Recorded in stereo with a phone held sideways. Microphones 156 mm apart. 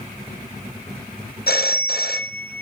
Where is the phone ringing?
85° left, 0.7 m.